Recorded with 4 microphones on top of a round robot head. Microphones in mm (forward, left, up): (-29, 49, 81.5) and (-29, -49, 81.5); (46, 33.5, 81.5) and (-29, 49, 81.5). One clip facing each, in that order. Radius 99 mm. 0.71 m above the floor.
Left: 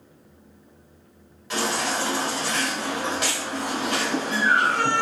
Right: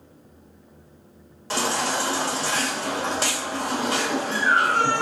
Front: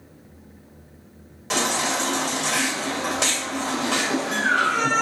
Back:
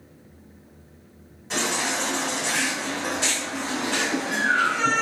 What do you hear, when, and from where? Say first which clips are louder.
1.5 s a baby crying: right 1 dB, front 3 dB; 35° right, 2 m